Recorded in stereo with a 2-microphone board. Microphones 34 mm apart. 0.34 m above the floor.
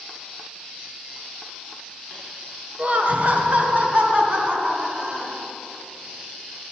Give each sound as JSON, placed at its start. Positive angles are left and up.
{"t": 2.8, "sound": "laughter", "side_deg": -40, "distance_m": 1.4}